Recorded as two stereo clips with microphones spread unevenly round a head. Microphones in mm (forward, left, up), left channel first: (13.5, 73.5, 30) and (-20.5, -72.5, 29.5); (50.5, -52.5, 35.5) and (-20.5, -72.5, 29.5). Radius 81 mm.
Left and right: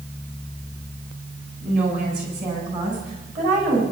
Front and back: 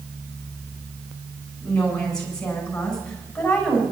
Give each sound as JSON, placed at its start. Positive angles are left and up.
{"t": 1.6, "sound": "a woman speaking", "azimuth_deg": -65, "distance_m": 8.0}